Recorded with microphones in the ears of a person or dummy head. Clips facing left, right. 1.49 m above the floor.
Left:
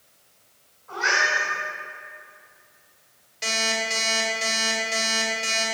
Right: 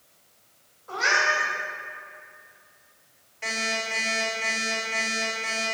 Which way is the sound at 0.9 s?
55° right (ahead or behind).